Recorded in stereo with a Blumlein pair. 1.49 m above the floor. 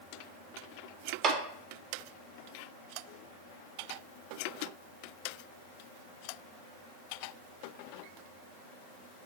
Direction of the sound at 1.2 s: 30° right.